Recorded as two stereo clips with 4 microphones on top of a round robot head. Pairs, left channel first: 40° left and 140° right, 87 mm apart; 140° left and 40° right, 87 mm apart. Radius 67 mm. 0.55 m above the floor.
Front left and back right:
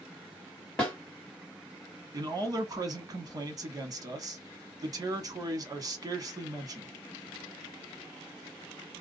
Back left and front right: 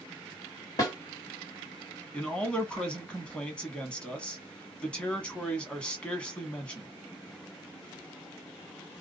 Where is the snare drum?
115° left, 1.7 m.